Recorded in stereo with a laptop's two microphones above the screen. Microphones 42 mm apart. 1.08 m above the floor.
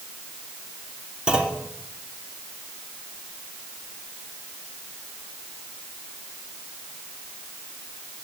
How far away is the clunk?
About 2.5 m.